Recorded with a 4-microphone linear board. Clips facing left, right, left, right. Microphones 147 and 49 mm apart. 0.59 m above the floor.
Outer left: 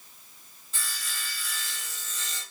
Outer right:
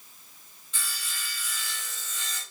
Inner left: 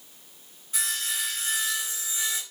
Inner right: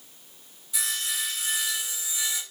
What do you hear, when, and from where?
0.7 s sawing: 40° left (ahead or behind), 1.8 m